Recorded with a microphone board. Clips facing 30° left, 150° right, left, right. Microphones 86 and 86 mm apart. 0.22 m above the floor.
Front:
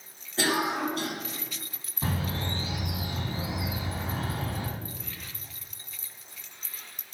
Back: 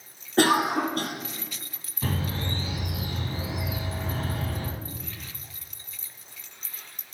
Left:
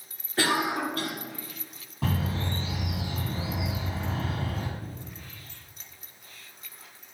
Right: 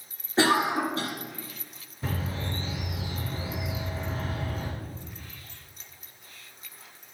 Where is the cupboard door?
I don't hear a cupboard door.